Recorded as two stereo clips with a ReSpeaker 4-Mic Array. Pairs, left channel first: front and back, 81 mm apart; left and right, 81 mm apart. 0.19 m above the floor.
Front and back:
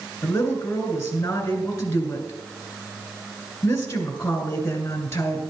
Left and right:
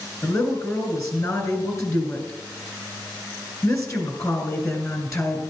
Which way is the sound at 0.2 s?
55° left.